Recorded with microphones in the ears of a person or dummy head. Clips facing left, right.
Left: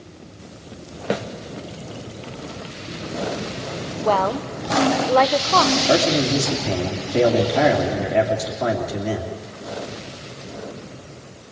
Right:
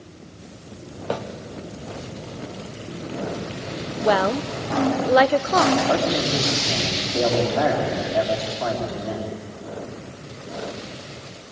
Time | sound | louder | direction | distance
1.1 | a snare drum | left 3 dB | 20° left (ahead or behind) | 0.9 m
4.0 | a woman speaking | right 1 dB | 15° right (ahead or behind) | 0.8 m
5.9 | a man speaking | left 3 dB | 35° left (ahead or behind) | 3 m